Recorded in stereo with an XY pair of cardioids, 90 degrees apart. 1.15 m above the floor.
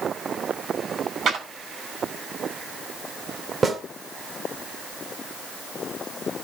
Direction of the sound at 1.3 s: 65° right.